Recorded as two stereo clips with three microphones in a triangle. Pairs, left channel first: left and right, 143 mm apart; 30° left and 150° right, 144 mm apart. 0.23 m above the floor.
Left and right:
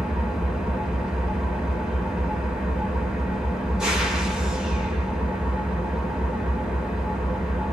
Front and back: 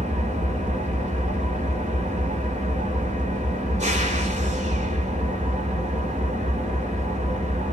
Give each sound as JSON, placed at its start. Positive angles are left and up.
{"t": 0.0, "sound": "an engine running", "azimuth_deg": -175, "distance_m": 0.8}